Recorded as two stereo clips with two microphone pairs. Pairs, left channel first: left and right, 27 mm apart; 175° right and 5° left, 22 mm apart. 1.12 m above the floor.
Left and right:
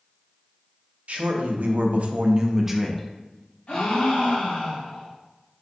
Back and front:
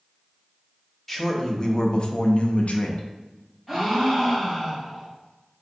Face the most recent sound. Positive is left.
turn(degrees=105)